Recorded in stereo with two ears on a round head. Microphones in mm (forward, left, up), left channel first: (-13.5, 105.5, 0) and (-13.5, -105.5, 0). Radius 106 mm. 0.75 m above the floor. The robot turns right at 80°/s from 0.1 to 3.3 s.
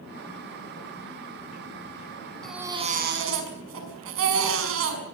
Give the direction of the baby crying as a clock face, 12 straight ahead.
6 o'clock.